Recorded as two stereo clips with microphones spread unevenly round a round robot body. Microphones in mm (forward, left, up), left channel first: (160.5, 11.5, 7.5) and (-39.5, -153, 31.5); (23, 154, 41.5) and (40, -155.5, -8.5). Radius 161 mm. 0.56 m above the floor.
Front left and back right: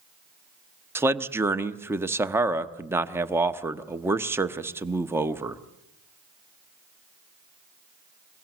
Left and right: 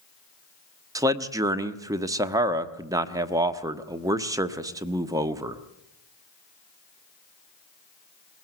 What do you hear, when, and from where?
0.9 s a man speaking: 60° right, 0.9 m